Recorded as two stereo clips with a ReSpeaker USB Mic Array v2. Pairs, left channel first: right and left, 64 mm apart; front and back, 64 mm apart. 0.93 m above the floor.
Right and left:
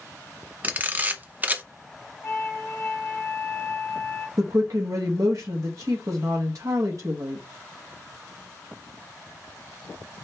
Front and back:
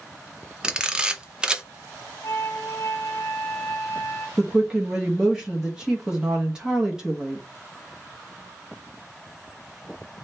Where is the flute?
45° right, 2.0 m.